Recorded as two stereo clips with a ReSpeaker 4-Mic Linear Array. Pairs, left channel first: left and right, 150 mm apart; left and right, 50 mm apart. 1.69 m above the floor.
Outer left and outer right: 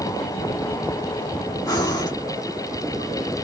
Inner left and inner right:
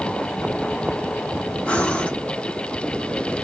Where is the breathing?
25° left (ahead or behind), 1.9 m.